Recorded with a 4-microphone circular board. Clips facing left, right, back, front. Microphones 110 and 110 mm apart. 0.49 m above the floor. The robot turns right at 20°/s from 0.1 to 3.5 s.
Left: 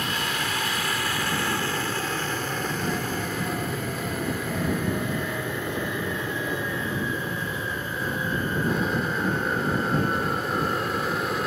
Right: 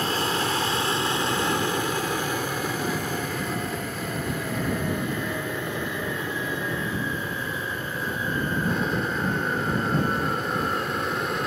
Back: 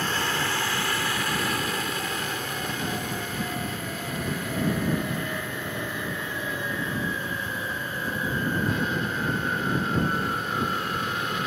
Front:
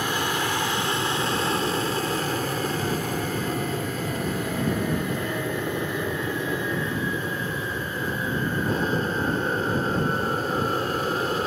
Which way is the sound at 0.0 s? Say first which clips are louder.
Right 4 dB, front 2 dB; 65° right.